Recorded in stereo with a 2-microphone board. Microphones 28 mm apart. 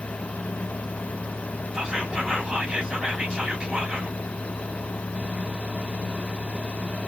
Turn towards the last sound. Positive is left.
turn(degrees=-20)  # may be behind; listen again after turning